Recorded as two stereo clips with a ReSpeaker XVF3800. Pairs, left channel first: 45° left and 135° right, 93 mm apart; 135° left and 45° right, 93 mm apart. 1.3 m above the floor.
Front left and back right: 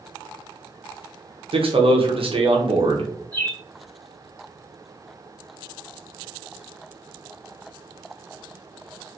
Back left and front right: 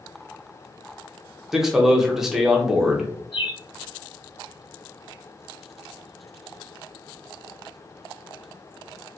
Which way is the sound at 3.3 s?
115° left.